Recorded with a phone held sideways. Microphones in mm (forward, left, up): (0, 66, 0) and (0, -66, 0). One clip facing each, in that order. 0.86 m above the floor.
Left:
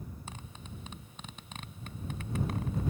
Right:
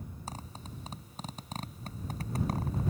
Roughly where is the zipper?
Right.